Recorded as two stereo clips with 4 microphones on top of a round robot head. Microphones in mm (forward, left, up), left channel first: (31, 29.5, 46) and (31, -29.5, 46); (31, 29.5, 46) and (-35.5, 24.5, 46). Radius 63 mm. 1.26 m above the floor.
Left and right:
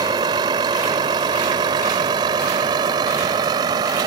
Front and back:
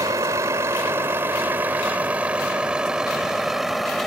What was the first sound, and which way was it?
A vehicle, 120° right.